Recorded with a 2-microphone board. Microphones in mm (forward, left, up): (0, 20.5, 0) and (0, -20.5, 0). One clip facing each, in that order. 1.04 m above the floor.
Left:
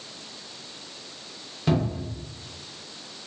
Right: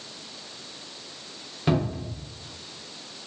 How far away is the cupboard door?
About 0.7 m.